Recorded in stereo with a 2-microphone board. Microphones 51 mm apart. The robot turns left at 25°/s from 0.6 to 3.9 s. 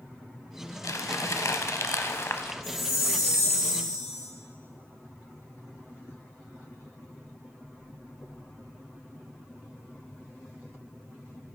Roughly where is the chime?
Right.